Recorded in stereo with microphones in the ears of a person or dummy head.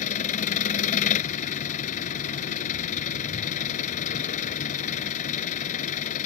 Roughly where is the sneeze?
No sneeze in this recording.